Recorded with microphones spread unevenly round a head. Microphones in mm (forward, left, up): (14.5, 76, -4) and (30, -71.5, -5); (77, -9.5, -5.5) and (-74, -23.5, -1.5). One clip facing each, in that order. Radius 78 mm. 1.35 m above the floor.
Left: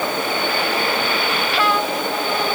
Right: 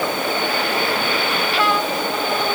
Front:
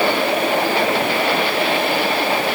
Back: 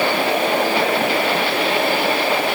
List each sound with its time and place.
Only background noise.